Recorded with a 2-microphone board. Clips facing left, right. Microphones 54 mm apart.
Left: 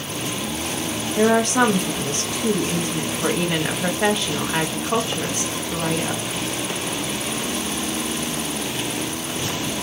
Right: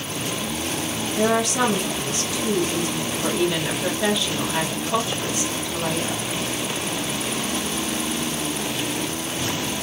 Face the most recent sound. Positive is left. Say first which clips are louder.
# left 4 dB
turn(degrees=40)  # may be behind; listen again after turning